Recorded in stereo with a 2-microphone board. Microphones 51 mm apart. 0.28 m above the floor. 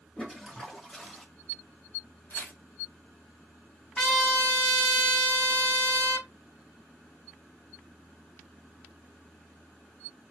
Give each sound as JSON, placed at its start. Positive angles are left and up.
{"t": 0.2, "sound": "a toilet flushing", "side_deg": 10, "distance_m": 1.3}
{"t": 2.3, "sound": "tearing paper", "side_deg": 40, "distance_m": 1.2}
{"t": 4.0, "sound": "a trumpet", "side_deg": 15, "distance_m": 2.5}